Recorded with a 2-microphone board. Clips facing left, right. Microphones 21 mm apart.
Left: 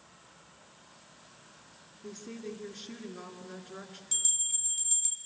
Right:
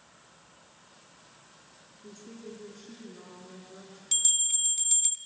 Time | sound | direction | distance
2.0 | a woman speaking | 45° left (ahead or behind) | 3 m
4.1 | a bell | 35° right (ahead or behind) | 1.5 m